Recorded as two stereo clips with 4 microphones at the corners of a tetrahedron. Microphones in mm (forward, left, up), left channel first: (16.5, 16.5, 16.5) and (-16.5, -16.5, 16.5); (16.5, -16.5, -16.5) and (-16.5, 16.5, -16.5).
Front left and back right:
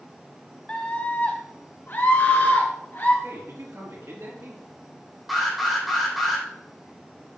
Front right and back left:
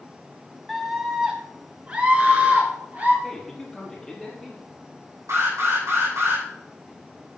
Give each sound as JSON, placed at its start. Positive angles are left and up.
{"t": 0.7, "sound": "a scream", "azimuth_deg": 40, "distance_m": 1.5}
{"t": 3.2, "sound": "a man speaking", "azimuth_deg": -130, "distance_m": 5.0}
{"t": 5.3, "sound": "an alarm", "azimuth_deg": 135, "distance_m": 6.0}